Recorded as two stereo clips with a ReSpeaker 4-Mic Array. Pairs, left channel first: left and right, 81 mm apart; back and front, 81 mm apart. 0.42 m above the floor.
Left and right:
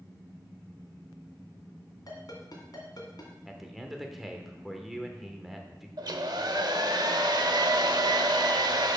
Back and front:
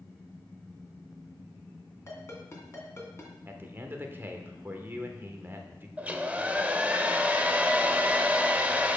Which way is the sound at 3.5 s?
5° right.